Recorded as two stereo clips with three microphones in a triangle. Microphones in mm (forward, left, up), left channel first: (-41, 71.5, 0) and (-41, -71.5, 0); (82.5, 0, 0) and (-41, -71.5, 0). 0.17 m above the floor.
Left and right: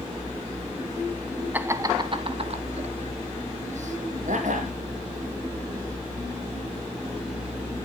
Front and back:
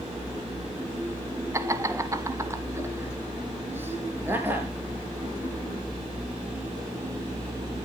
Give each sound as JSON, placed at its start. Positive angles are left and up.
{"t": 1.5, "sound": "laughter", "azimuth_deg": -145, "distance_m": 1.0}